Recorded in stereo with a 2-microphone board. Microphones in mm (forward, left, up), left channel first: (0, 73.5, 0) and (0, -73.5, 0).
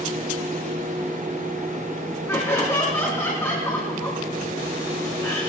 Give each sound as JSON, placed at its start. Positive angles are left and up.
{"t": 2.3, "sound": "laughter", "side_deg": 20, "distance_m": 3.5}